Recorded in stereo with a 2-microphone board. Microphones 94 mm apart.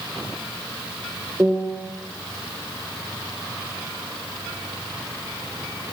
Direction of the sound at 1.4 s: 20° right (ahead or behind).